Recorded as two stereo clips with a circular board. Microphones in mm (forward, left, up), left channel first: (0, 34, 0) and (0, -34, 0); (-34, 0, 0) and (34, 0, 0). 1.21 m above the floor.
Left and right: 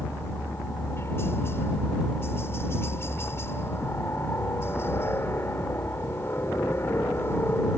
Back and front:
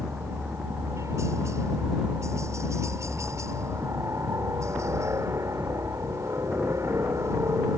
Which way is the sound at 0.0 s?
40° left.